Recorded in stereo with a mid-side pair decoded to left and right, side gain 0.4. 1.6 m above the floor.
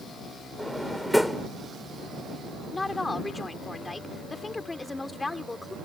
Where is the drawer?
Straight ahead.